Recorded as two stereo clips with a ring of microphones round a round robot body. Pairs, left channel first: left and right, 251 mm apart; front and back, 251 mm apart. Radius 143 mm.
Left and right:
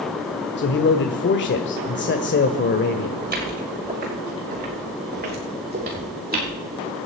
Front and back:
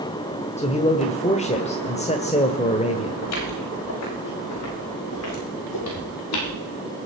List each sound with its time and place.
0.6 s a man speaking: 60° left, 1.4 m
3.2 s footsteps: 40° right, 9 m; by 6.5 s 35° right, 7 m